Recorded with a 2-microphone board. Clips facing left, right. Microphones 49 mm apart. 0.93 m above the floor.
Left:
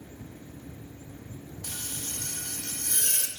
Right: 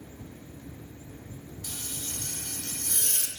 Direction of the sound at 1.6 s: 55° left (ahead or behind).